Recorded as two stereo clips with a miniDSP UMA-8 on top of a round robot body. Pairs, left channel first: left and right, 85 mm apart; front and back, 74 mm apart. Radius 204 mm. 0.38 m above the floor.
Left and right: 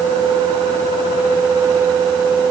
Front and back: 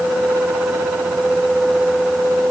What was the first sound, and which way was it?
Only background noise.